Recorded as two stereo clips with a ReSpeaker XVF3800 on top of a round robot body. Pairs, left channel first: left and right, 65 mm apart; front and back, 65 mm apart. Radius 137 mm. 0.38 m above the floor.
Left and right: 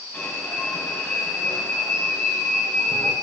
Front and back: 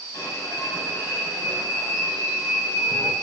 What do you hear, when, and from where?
0.1 s an alarm: 20° left, 7 m